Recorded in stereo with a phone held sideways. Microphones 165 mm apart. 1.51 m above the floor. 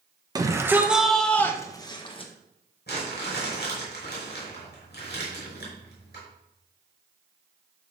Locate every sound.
0.3 s a shout: 20° right (ahead or behind), 1.2 m; by 2.3 s 35° left (ahead or behind), 1.4 m
2.9 s crumpling: 70° left (ahead or behind), 4.5 m